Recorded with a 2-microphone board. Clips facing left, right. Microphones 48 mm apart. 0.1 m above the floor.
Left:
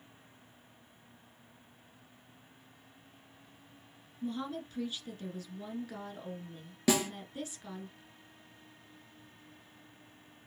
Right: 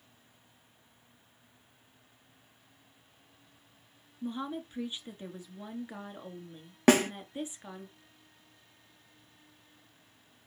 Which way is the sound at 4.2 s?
20° right (ahead or behind).